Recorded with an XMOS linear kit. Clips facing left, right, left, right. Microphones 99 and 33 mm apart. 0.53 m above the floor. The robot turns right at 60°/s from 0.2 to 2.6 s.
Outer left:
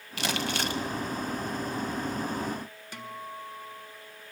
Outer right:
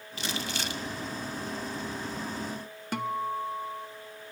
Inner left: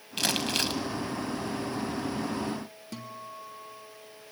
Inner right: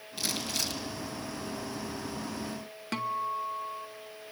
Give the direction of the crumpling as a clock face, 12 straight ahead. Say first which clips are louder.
Outer left 5 dB, inner left 6 dB; 9 o'clock.